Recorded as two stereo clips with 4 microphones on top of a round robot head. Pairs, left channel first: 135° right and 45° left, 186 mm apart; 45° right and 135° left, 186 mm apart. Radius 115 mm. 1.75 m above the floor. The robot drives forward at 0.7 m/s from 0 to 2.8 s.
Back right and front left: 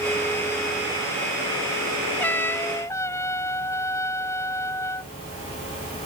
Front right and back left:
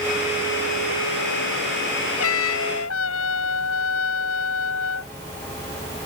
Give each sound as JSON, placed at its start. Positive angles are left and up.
{"t": 2.2, "sound": "a trumpet", "azimuth_deg": -55}